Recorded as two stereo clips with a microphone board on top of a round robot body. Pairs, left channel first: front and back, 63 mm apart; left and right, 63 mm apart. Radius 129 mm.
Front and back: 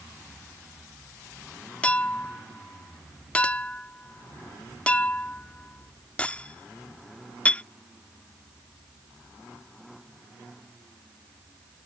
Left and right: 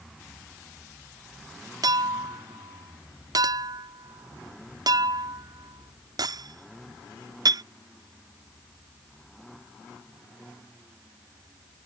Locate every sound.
1.8 s a clink: 70° right